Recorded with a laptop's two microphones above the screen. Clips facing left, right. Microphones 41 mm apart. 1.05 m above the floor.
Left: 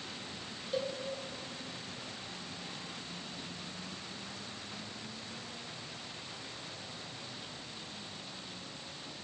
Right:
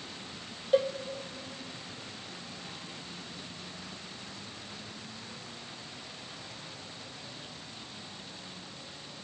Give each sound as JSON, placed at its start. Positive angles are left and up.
{"t": 0.7, "sound": "a cowbell", "side_deg": -45, "distance_m": 0.8}